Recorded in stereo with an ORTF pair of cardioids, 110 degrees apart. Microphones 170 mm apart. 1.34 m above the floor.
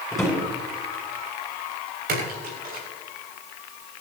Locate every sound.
0.1 s a drawer: straight ahead, 9 m
2.1 s a splash: 60° right, 7 m